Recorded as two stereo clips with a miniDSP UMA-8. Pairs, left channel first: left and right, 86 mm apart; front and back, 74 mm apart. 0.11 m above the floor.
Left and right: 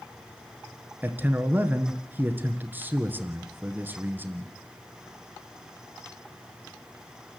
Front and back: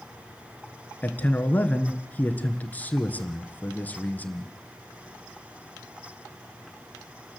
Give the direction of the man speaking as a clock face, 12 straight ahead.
2 o'clock.